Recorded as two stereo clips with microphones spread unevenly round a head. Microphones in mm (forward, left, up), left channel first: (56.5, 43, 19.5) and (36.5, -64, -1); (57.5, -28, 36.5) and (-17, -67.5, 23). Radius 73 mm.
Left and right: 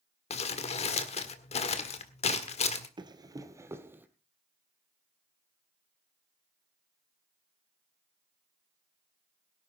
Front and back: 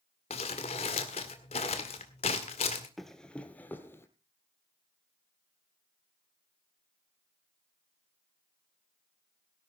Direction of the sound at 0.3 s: 60° left.